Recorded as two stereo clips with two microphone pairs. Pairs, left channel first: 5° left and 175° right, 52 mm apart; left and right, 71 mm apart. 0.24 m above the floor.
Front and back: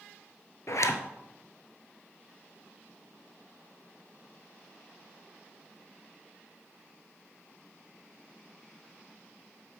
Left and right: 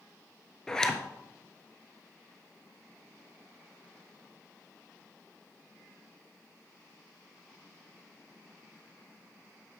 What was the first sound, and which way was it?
A zipper, 10° left.